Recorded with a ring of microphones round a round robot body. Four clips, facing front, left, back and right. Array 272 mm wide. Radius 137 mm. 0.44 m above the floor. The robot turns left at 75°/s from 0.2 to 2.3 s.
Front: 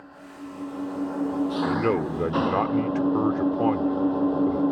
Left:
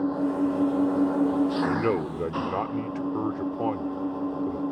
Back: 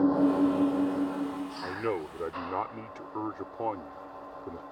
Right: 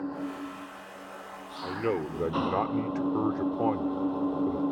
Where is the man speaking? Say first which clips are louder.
Left 5 dB, front 7 dB; 45° left; by 4.6 s 5° right.